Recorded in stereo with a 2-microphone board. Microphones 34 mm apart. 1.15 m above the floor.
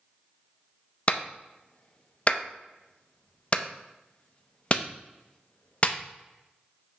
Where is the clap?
35° left (ahead or behind), 0.7 m.